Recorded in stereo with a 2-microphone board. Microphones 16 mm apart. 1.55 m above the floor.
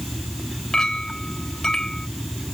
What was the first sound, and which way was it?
A clink, 50° left (ahead or behind).